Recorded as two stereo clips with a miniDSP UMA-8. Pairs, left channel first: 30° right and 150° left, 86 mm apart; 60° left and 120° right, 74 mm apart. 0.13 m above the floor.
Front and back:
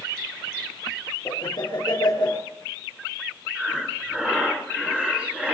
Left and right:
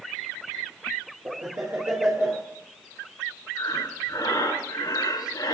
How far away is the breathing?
About 4.5 m.